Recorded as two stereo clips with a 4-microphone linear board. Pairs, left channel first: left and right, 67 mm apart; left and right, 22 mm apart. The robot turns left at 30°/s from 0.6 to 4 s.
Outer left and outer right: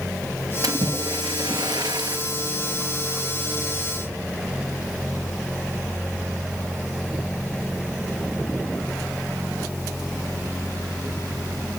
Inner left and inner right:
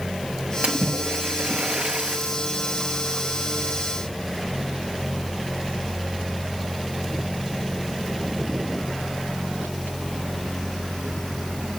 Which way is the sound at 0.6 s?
60° right.